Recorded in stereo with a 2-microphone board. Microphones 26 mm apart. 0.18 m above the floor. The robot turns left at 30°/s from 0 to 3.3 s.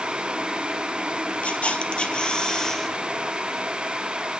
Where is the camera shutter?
60° left, 2 m; by 3.0 s 15° left, 2 m.